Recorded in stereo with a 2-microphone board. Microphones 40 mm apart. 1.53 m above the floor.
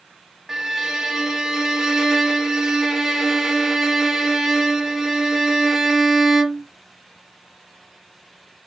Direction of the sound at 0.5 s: 10° right (ahead or behind).